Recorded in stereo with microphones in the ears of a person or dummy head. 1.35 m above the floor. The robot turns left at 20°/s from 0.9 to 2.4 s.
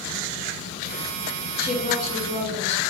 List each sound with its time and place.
1.6 s a woman speaking: 55° left (ahead or behind), 1.2 m; by 2.8 s 40° left (ahead or behind), 1.2 m